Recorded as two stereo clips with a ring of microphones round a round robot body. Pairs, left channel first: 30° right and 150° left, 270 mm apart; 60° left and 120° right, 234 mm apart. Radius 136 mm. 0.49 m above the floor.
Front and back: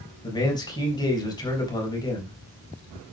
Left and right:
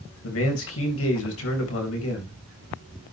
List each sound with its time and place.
0.2 s a man speaking: 45° left, 3.5 m